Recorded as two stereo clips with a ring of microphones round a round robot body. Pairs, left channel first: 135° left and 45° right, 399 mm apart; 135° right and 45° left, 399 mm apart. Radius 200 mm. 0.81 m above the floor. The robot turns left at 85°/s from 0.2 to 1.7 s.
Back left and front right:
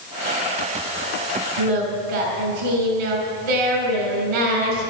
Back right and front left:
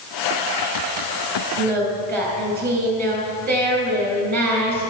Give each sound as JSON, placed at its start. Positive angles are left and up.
{"t": 1.6, "sound": "singing", "azimuth_deg": -10, "distance_m": 3.5}